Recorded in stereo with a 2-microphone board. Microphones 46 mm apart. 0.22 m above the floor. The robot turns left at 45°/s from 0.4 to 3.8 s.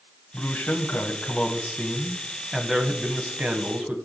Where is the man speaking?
95° left, 1.1 m; by 4.0 s 60° right, 1.1 m.